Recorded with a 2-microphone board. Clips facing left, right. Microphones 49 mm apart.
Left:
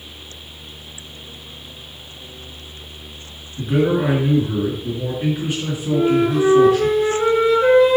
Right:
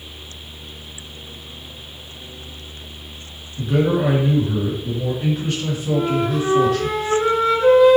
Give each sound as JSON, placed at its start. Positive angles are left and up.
{"t": 3.6, "sound": "a man speaking", "side_deg": 15, "distance_m": 1.9}
{"t": 5.9, "sound": "a flute", "side_deg": 5, "distance_m": 2.5}